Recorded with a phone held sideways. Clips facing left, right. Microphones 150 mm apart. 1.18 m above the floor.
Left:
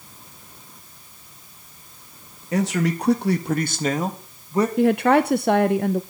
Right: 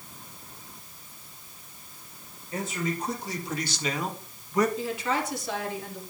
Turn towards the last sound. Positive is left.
turn(degrees=65)  # may be behind; listen again after turning